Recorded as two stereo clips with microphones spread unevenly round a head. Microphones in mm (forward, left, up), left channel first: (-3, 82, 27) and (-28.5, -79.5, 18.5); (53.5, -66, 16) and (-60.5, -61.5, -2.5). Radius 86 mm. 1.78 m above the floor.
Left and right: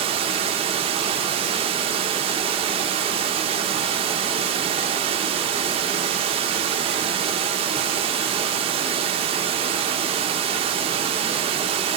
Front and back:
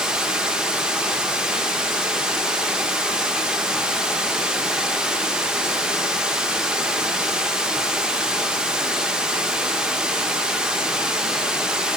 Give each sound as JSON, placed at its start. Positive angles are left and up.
{"t": 0.0, "sound": "running water", "azimuth_deg": -85, "distance_m": 1.0}